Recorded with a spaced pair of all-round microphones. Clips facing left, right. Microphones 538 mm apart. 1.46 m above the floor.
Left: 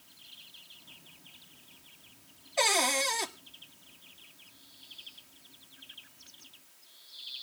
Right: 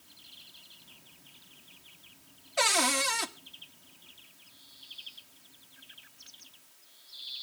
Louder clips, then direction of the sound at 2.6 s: Even; 35° right (ahead or behind).